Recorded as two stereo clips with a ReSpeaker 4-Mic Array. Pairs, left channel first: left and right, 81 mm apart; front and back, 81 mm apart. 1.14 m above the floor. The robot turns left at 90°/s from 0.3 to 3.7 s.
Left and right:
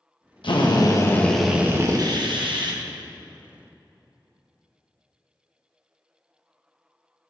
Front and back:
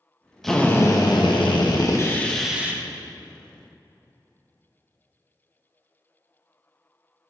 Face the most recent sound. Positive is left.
turn(degrees=155)